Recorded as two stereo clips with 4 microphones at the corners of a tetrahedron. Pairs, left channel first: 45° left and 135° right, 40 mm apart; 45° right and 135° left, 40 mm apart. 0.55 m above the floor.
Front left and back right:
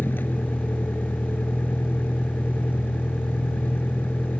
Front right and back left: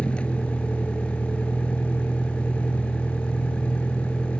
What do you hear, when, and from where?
0.0 s a vehicle: 15° left